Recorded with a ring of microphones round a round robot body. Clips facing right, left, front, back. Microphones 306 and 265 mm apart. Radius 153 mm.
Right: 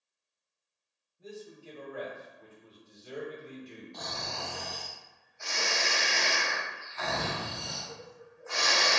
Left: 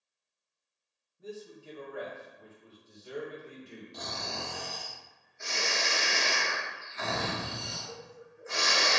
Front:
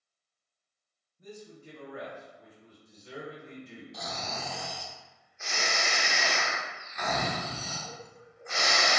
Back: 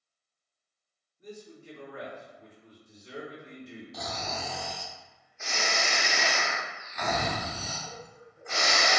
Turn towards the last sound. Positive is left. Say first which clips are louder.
# left 2 dB, back 2 dB
turn(degrees=160)